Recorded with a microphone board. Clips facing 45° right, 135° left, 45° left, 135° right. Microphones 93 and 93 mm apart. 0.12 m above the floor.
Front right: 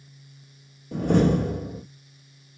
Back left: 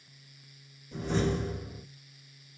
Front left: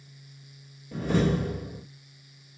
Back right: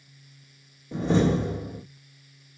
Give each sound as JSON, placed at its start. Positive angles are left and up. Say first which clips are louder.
{"t": 0.9, "sound": "a door slam", "louder": "front right 9 dB, back right 3 dB", "azimuth_deg": -70, "distance_m": 3.0}